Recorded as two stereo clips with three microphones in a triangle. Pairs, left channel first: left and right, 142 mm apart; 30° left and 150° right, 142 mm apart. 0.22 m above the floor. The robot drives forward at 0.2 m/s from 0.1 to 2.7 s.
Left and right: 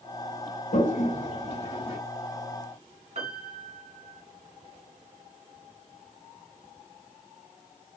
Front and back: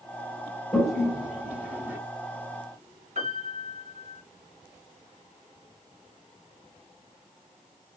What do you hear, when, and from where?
0.7 s a toilet flushing: 120° left, 0.7 m; by 2.0 s 135° left, 0.9 m
3.1 s a piano: 120° right, 1.5 m